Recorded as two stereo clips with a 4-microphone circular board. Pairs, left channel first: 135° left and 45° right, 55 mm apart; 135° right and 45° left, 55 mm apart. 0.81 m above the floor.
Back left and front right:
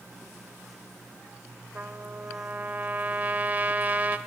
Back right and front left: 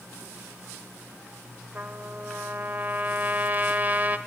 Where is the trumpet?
Straight ahead, 0.7 m.